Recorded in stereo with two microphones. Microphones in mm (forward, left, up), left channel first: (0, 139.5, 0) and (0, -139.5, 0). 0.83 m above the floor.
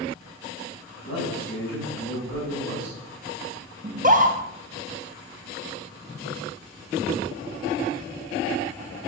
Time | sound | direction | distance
1.0 | a man speaking | 45° left (ahead or behind) | 4.5 m
3.8 | a scream | 30° right (ahead or behind) | 0.9 m